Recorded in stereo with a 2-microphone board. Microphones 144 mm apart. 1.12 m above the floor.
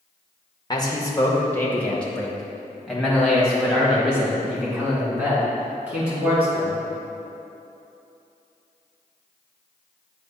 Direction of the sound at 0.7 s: 30° left (ahead or behind).